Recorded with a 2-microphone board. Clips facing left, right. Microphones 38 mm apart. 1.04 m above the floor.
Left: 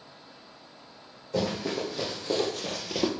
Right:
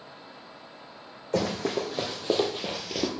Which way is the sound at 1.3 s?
55° right (ahead or behind).